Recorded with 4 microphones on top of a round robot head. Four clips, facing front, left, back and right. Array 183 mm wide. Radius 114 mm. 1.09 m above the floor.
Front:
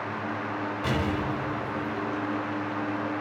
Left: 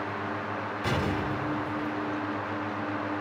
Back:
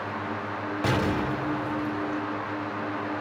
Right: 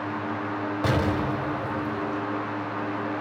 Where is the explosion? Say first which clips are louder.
Right 4 dB, back 4 dB; 120° right, 1.4 m.